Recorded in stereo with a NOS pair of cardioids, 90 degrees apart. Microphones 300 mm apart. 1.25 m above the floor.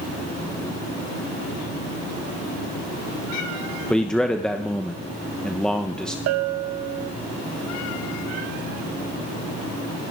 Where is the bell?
60° right, 0.6 m.